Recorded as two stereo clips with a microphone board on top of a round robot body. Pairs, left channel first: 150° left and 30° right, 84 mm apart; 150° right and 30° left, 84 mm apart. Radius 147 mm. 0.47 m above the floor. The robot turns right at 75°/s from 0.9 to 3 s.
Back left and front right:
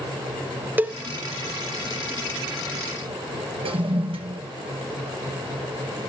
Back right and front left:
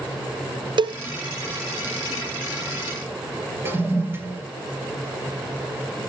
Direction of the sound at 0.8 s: 35° left.